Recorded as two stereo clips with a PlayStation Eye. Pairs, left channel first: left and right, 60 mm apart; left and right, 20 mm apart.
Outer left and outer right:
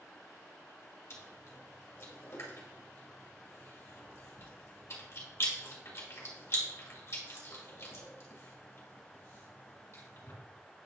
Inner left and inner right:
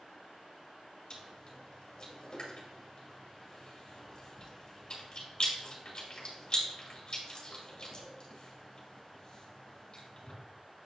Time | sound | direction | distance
1.1 | chewing | 50° left (ahead or behind) | 2 m